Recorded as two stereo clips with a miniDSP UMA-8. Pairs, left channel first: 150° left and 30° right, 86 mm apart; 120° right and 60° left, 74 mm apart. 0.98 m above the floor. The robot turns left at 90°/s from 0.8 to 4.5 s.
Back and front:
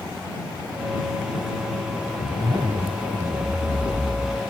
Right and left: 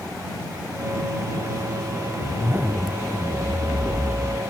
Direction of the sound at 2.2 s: 30° left.